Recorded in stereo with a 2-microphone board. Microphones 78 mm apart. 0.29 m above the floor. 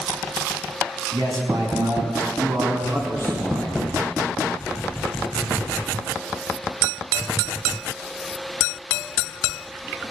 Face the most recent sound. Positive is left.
turn(degrees=-50)  # may be behind; listen again after turning